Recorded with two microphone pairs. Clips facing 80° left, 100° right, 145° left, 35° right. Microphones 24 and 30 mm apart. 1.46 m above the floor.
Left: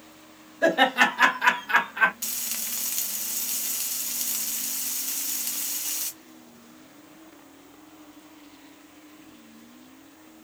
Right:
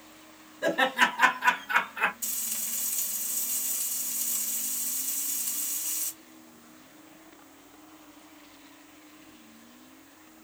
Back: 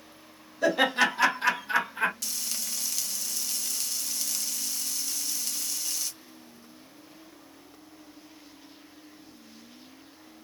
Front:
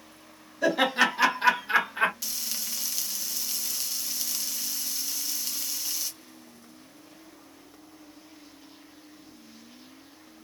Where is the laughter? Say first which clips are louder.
Left 4 dB, even; 60° left, 2.5 m; by 2.1 s 25° left, 1.3 m.